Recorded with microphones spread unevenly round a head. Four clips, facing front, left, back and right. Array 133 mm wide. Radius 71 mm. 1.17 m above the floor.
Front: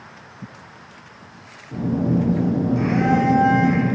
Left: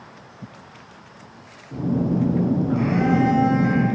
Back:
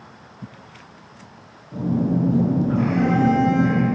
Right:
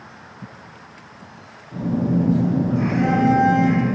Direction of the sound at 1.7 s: 35° left.